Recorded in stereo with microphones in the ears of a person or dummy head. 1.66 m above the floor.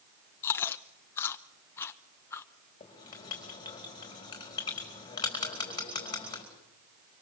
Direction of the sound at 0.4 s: 20° left (ahead or behind).